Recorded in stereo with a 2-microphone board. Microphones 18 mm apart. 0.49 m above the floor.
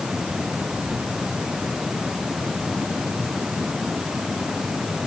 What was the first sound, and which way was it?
Only background noise.